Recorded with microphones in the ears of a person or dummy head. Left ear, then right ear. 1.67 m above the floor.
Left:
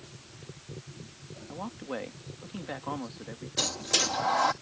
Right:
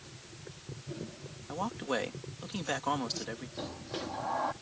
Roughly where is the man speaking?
Right.